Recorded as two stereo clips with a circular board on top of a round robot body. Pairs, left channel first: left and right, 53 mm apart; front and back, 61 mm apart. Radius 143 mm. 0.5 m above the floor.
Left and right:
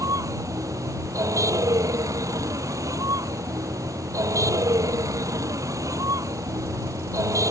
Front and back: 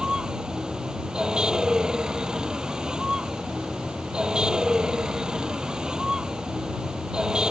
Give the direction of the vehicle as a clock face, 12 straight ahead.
3 o'clock.